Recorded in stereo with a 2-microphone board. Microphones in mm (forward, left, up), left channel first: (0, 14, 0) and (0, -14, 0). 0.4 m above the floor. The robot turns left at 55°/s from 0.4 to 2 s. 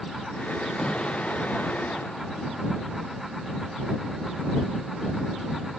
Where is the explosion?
160° left; by 2.9 s 95° left.